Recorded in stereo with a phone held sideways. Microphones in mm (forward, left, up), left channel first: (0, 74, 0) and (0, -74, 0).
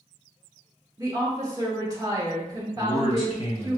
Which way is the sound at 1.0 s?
25° right (ahead or behind).